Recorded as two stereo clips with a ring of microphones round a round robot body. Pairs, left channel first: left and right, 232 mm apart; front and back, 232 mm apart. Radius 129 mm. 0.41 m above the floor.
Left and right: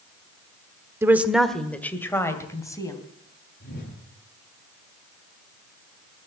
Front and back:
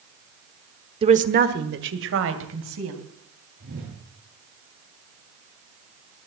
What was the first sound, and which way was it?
A woman speaking, 155° right.